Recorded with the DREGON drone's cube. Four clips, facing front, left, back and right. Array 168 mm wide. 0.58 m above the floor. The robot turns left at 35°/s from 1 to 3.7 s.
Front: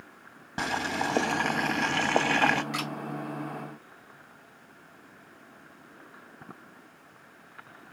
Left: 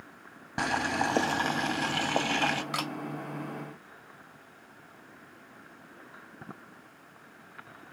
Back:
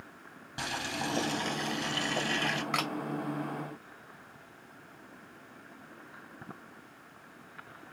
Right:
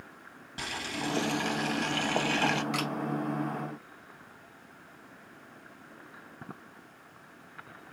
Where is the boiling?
50° left, 0.7 m; by 2.6 s 5° right, 0.7 m.